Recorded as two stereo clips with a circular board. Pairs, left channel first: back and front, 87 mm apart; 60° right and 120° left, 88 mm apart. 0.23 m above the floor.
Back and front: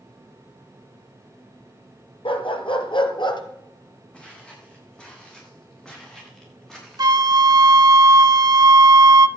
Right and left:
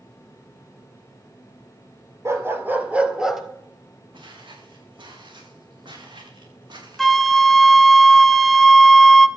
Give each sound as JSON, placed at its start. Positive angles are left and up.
{"t": 2.2, "sound": "a dog barking", "azimuth_deg": 180, "distance_m": 2.0}
{"t": 4.1, "sound": "footsteps", "azimuth_deg": 100, "distance_m": 9.0}
{"t": 7.0, "sound": "a flute", "azimuth_deg": 30, "distance_m": 0.8}